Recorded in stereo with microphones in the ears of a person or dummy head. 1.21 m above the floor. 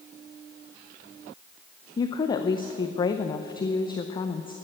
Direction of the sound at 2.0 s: 25° left (ahead or behind).